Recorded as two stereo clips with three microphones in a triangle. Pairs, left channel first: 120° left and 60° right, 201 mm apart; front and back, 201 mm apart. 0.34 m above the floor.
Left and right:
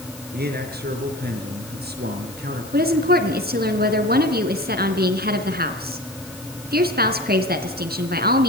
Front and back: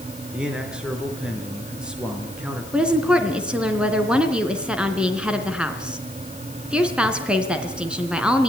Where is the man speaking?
95° right, 4.5 m.